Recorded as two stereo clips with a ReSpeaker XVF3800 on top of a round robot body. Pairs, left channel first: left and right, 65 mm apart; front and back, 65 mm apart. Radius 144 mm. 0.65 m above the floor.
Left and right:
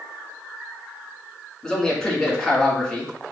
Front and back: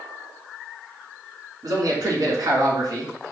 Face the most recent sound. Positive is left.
turn(degrees=175)